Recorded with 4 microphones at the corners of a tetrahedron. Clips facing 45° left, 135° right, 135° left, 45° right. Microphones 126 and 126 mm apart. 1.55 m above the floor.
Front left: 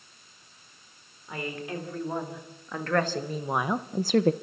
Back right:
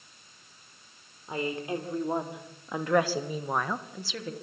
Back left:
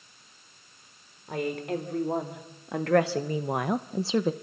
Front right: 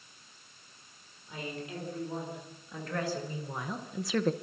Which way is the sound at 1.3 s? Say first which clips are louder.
Back right 3 dB, back left 10 dB; 160° left.